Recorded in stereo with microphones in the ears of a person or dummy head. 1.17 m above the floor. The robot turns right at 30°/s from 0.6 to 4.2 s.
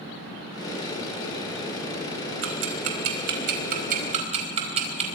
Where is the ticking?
85° right, 4.5 m; by 5.1 s 35° right (ahead or behind), 4.5 m.